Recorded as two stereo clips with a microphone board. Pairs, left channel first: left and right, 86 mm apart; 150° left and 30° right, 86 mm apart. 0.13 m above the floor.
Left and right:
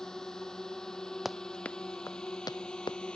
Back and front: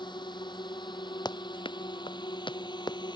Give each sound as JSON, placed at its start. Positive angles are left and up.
{"t": 0.0, "sound": "a drone", "azimuth_deg": 175}
{"t": 1.2, "sound": "running footsteps", "azimuth_deg": 180}